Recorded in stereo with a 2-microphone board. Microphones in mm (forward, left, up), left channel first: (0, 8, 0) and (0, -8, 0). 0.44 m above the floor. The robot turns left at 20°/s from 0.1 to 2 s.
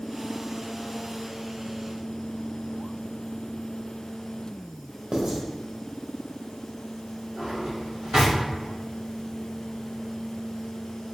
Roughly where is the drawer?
Right.